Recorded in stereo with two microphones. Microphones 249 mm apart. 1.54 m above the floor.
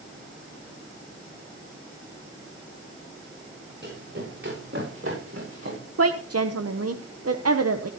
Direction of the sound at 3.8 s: 45° right (ahead or behind).